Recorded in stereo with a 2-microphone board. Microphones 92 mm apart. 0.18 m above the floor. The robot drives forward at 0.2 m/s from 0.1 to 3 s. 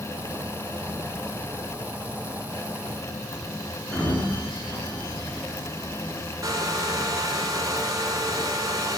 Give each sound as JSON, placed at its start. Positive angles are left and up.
{"t": 3.9, "sound": "a sliding door", "side_deg": 10, "distance_m": 2.5}
{"t": 6.4, "sound": "a hair dryer", "side_deg": -40, "distance_m": 1.0}